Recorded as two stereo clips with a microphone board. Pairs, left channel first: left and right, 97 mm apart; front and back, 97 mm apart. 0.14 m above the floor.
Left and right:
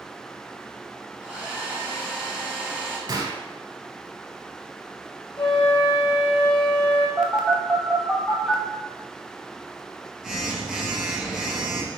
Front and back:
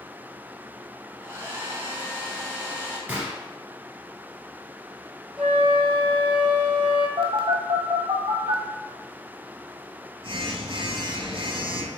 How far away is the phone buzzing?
About 0.7 m.